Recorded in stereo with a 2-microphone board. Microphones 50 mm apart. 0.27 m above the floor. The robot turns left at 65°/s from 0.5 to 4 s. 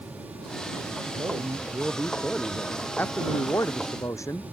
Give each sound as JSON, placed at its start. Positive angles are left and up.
{"t": 1.1, "sound": "a man speaking", "azimuth_deg": -105}
{"t": 3.0, "sound": "a man speaking", "azimuth_deg": 145}